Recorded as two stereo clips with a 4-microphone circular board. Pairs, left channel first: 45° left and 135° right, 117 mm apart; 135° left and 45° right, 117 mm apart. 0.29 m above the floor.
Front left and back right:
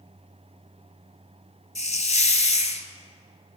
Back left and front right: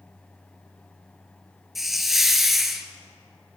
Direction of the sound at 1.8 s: 45° left.